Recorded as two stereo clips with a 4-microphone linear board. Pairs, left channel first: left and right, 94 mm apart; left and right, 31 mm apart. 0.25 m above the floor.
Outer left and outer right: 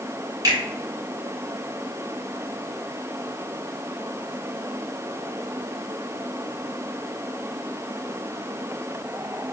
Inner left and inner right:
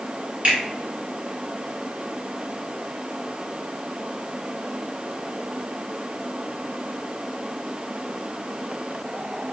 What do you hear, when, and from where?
0.4 s a finger snap: 40° right (ahead or behind), 1.8 m